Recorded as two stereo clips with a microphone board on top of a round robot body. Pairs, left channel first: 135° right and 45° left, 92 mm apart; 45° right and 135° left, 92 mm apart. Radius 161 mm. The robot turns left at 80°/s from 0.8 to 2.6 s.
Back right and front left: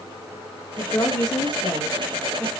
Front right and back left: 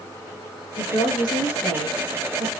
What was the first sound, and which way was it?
A woman speaking, 50° right.